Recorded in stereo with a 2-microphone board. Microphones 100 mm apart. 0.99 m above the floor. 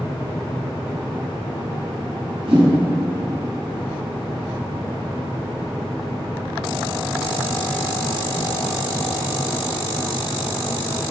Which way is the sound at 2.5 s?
65° right (ahead or behind).